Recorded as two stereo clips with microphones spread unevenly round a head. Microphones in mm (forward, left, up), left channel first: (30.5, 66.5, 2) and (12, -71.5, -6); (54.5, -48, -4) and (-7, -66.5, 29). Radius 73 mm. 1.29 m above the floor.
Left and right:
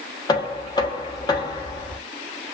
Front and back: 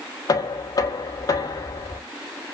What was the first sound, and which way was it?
Knocking, 20° left.